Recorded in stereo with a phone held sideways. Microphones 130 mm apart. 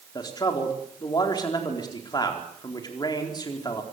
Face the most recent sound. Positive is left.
turn(degrees=30)  # may be behind; listen again after turning